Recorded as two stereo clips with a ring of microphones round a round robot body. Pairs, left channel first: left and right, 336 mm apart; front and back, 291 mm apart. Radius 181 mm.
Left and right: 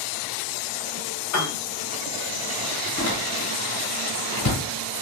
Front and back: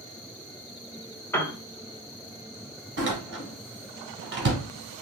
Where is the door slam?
130° left, 2 m.